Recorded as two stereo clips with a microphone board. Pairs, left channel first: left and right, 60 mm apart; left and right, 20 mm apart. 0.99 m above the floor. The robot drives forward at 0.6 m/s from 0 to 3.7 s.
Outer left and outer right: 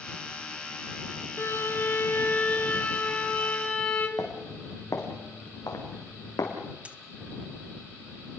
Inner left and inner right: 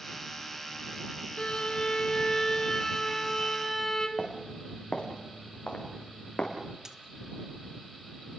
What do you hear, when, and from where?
1.4 s a violin: 45° left (ahead or behind), 1.5 m; by 4.1 s 25° left (ahead or behind), 2.5 m
4.2 s footsteps: 65° left (ahead or behind), 4.5 m; by 6.5 s 80° left, 4.5 m
6.8 s a dropped coin: 20° right (ahead or behind), 1.1 m